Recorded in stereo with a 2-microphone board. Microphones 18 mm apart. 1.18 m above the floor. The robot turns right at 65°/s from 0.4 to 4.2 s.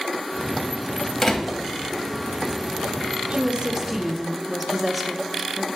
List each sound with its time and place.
1.2 s a door slam: 20° left (ahead or behind), 1.1 m; by 1.6 s 45° left (ahead or behind), 1.1 m
3.3 s a woman speaking: 55° right, 0.6 m; by 5.7 s 5° left, 0.6 m